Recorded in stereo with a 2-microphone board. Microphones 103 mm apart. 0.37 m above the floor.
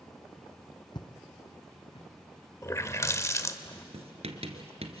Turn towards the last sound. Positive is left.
turn(degrees=-85)